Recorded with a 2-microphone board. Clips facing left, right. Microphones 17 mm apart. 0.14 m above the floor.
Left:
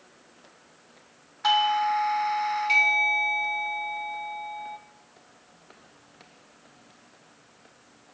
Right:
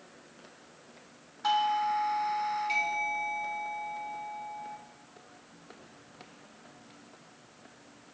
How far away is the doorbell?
About 1.8 m.